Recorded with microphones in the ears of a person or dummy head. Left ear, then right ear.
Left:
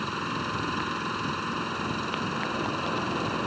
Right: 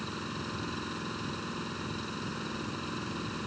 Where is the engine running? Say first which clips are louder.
Left 8 dB; 45° left (ahead or behind).